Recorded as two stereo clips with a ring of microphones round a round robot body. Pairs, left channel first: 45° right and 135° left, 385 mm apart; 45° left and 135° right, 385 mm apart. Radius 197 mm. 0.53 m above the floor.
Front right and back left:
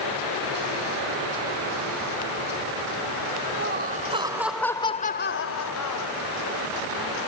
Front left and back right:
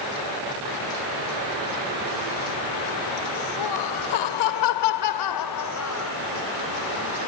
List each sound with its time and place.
3.6 s laughter: 75° left; by 6.1 s 10° right